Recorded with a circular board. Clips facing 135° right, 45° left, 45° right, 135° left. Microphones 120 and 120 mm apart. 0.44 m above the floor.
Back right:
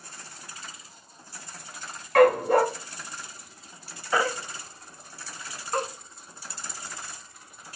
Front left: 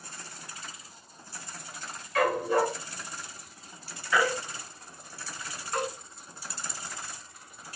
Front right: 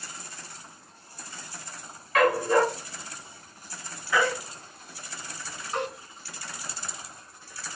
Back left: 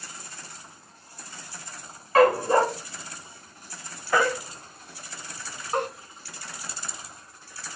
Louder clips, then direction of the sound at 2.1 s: Back right 7 dB, back left 3 dB; 170° right.